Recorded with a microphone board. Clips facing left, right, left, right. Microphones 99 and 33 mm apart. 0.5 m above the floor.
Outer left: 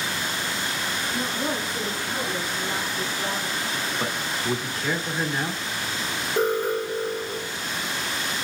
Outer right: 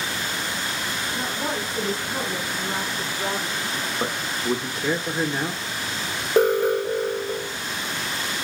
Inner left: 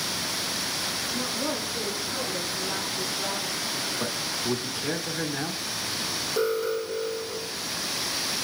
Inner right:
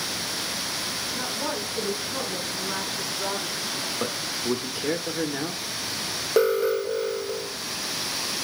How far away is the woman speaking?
About 4.5 m.